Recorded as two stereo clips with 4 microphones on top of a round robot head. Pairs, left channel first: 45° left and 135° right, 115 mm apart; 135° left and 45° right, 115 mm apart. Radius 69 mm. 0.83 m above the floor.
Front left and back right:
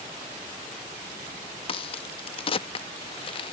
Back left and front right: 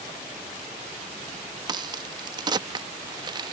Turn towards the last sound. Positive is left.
turn(degrees=5)